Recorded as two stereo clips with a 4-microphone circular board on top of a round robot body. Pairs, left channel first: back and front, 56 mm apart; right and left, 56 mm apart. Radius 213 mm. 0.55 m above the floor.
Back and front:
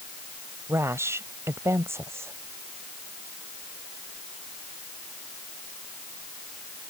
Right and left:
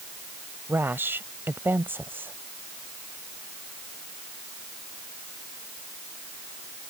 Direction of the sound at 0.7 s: 40° left.